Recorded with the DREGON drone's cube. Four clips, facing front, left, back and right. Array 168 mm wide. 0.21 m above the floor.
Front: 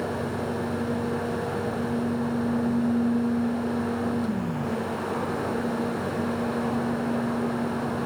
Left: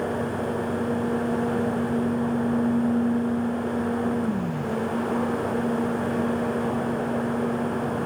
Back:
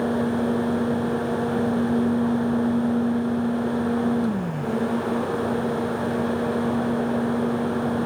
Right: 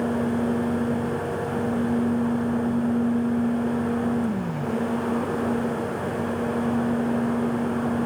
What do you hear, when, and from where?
Only background noise.